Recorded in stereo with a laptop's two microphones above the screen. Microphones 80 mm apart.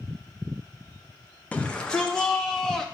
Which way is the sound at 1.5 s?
15° left (ahead or behind).